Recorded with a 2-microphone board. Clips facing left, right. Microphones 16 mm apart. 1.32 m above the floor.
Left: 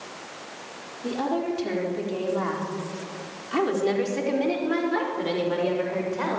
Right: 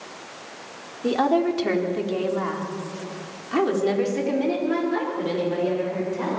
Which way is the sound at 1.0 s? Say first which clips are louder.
Right 6 dB; 45° right (ahead or behind).